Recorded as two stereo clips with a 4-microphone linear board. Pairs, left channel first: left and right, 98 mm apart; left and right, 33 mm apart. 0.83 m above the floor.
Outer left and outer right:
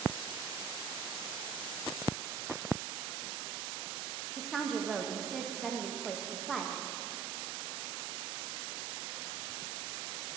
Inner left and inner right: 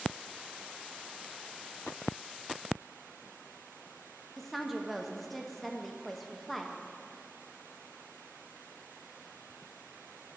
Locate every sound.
4.4 s a woman speaking: centre (ahead or behind), 0.7 m